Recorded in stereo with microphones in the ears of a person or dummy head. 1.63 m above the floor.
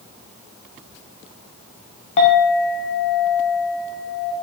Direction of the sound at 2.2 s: 35° left (ahead or behind).